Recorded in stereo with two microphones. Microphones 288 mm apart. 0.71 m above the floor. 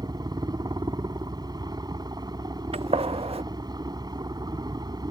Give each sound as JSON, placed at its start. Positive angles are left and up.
{"t": 0.0, "sound": "a helicopter", "side_deg": -15}
{"t": 2.7, "sound": "a gunshot", "side_deg": -20}